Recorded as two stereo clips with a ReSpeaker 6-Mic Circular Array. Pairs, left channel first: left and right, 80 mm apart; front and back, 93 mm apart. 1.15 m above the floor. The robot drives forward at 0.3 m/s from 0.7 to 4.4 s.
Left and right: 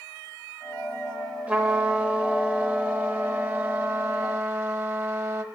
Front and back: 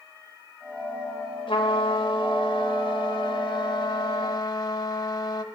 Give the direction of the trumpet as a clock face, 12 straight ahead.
1 o'clock.